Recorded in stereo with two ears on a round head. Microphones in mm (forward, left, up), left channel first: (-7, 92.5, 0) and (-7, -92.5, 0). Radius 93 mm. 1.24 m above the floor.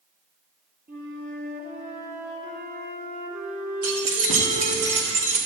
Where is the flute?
40° right (ahead or behind), 1.1 m.